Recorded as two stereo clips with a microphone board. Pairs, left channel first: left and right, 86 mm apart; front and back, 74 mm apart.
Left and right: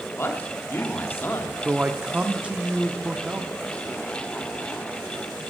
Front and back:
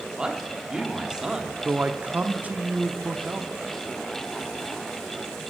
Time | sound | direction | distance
0.2 | a man speaking | 110° left | 1.3 m
1.6 | a man speaking | 145° right | 0.7 m